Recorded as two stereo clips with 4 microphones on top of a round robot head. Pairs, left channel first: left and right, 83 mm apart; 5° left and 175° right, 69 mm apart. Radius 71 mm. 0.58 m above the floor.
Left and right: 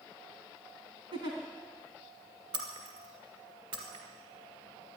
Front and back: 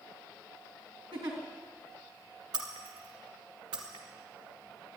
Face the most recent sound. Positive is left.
turn(degrees=-135)